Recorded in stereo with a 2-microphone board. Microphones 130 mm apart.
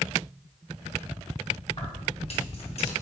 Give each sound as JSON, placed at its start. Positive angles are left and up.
{"t": 1.7, "sound": "keys jangling", "side_deg": 45, "distance_m": 2.5}